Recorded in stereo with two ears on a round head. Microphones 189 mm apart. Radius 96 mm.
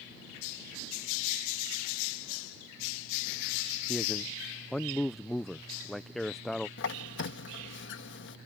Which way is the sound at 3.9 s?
Centre (ahead or behind).